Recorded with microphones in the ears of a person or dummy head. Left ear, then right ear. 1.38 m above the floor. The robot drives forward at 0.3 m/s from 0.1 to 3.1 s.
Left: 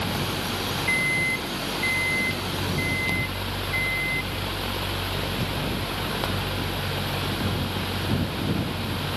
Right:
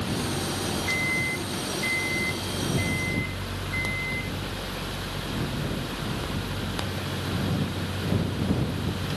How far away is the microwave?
About 0.7 m.